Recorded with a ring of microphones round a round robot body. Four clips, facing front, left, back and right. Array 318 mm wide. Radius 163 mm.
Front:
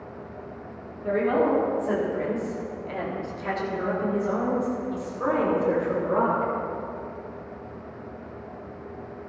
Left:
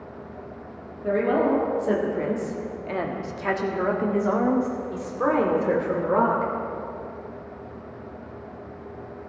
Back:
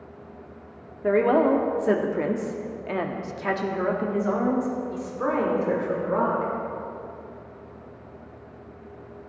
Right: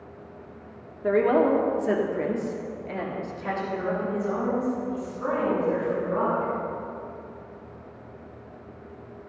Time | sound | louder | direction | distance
1.0 | a woman speaking | right 1 dB, back 3 dB | 150° right | 1.8 m